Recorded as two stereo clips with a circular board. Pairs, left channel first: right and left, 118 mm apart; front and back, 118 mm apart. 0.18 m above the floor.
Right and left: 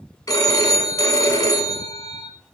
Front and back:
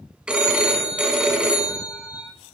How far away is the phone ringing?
About 1.1 m.